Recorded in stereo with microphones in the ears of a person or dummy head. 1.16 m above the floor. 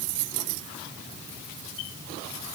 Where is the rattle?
I don't hear a rattle.